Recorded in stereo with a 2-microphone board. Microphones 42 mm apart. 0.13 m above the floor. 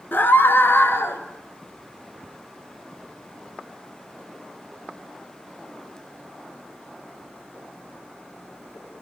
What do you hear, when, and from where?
0.1 s a scream: 45° left (ahead or behind), 2 m; by 1.2 s 60° left (ahead or behind), 3 m